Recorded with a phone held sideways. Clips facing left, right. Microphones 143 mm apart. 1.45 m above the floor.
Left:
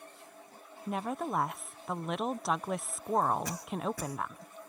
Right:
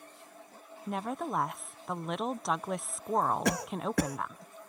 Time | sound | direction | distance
0.9 | a woman speaking | centre (ahead or behind) | ?
3.5 | a cough | 70° right (ahead or behind) | ?